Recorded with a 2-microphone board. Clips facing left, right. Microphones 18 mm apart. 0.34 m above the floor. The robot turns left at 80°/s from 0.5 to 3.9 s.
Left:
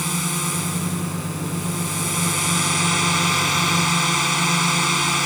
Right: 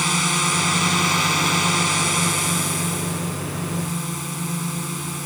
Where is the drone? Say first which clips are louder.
Right 5 dB; 25° right; by 5.3 s 60° left.